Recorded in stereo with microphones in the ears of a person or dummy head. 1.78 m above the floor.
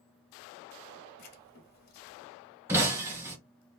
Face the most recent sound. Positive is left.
turn(degrees=-15)  # may be behind; listen again after turning